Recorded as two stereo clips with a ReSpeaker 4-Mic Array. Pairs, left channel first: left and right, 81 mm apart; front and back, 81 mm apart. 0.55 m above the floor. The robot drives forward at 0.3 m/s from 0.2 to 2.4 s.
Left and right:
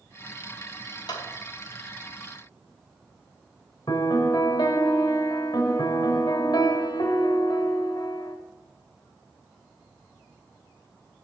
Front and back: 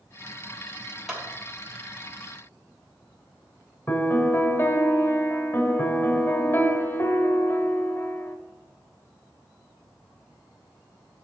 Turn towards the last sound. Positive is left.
turn(degrees=60)